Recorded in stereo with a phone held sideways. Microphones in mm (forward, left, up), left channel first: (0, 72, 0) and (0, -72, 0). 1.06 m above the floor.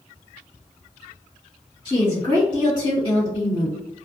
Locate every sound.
1.9 s a woman speaking: 25° left (ahead or behind), 1.7 m